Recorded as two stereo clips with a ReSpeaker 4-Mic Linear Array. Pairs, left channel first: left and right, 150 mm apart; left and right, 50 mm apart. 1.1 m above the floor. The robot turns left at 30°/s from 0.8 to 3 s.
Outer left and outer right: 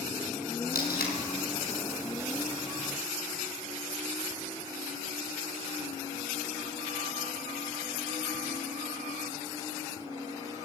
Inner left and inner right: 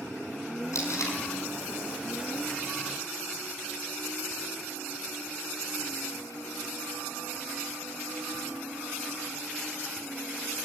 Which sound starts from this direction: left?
Tape being pulled, at 0.7 s.